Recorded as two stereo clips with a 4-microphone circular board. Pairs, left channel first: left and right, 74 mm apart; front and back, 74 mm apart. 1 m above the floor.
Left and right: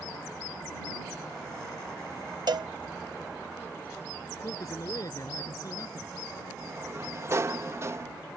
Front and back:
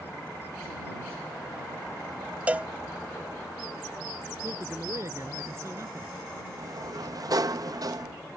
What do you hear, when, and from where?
2.5 s a cowbell: 105° right
4.4 s a man speaking: 130° left
6.6 s a sliding door: 140° right